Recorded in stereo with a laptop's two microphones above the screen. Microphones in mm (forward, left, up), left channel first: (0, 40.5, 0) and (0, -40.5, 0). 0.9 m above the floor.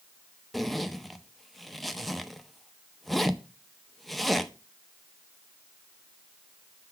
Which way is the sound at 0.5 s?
Centre (ahead or behind).